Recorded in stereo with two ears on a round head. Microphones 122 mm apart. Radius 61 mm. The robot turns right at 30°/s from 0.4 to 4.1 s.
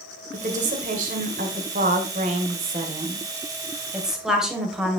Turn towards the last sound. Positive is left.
turn(degrees=-5)